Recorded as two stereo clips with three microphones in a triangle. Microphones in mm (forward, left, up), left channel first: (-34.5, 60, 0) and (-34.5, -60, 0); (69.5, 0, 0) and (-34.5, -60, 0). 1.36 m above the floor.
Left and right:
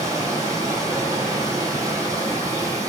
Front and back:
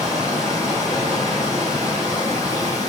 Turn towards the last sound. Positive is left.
turn(degrees=-30)